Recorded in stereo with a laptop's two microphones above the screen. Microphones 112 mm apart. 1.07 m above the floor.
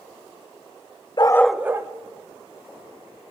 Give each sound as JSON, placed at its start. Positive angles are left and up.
{"t": 1.2, "sound": "a dog barking", "side_deg": 40, "distance_m": 0.5}